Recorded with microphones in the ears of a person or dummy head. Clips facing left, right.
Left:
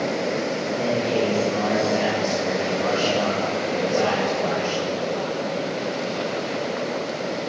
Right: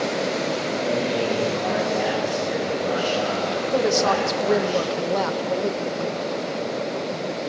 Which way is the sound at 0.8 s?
65° left (ahead or behind).